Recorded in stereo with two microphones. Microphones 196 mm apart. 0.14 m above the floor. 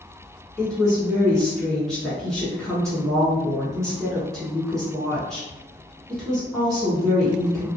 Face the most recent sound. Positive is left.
turn(degrees=5)  # may be behind; listen again after turning